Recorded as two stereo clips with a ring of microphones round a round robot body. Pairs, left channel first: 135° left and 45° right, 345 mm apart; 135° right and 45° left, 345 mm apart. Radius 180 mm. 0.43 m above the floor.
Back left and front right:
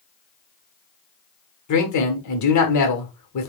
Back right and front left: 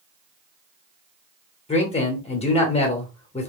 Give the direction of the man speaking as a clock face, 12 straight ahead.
7 o'clock.